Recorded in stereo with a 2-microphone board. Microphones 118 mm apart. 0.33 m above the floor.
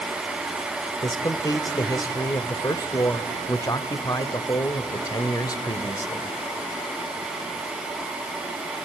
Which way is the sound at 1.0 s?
30° left (ahead or behind).